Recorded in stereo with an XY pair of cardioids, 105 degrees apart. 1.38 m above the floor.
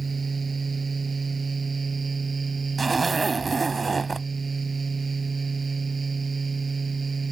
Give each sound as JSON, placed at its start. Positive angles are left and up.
{"t": 0.0, "sound": "a fan", "azimuth_deg": -25}
{"t": 2.8, "sound": "a zipper", "azimuth_deg": -25}